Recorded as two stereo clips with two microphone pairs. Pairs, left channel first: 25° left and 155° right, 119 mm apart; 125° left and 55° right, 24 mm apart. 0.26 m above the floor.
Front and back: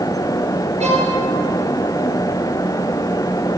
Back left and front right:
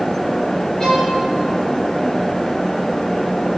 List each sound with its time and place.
0.8 s a violin: 165° right, 3.5 m